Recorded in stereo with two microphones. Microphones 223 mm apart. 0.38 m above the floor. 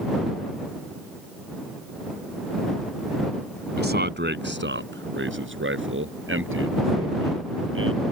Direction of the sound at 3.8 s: 50° right (ahead or behind).